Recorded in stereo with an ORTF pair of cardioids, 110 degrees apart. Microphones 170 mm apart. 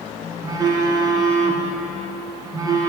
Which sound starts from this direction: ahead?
A phone buzzing, at 0.4 s.